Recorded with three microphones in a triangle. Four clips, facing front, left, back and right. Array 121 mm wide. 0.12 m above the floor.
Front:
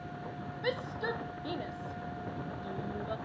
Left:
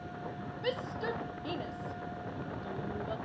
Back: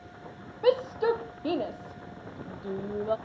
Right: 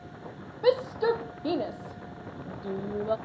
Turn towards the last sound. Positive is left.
turn(degrees=-140)